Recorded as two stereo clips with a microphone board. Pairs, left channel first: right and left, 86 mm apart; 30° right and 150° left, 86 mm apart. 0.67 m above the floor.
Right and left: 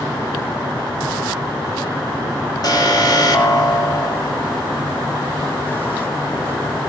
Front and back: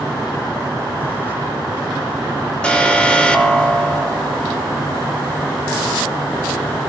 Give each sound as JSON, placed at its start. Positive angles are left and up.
{"t": 2.6, "sound": "an alarm", "azimuth_deg": -105, "distance_m": 2.5}